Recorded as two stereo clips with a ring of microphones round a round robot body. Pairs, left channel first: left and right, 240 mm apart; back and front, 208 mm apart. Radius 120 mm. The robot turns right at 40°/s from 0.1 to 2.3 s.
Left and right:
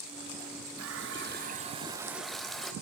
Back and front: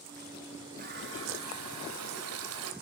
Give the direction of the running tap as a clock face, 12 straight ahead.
2 o'clock.